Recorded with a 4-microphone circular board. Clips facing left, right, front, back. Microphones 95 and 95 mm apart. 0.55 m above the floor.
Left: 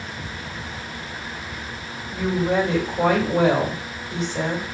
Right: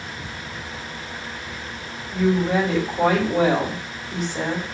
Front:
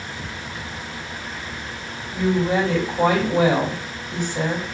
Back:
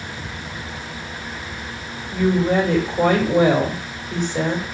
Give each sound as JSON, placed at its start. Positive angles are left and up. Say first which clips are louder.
{"t": 2.1, "sound": "a woman speaking", "louder": "right 2 dB, back 2 dB", "azimuth_deg": 180, "distance_m": 2.0}